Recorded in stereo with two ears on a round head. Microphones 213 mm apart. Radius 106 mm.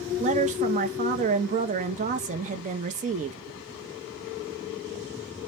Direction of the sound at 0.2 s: 30° right (ahead or behind).